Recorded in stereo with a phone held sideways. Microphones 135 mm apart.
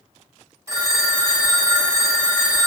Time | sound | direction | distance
0.7 | a phone ringing | 20° right (ahead or behind) | 1.2 m